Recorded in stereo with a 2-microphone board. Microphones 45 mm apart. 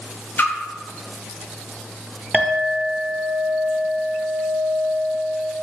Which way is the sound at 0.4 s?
50° left (ahead or behind).